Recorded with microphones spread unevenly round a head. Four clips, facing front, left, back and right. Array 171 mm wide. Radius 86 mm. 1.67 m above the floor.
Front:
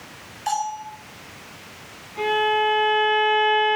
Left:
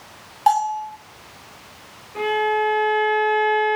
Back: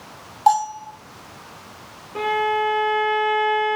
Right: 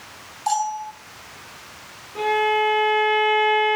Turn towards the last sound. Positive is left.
turn(degrees=175)